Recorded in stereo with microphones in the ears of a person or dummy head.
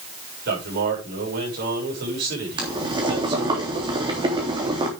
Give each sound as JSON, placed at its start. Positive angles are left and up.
{"t": 0.5, "sound": "a man speaking", "side_deg": -55, "distance_m": 7.0}
{"t": 2.6, "sound": "boiling", "side_deg": -25, "distance_m": 3.0}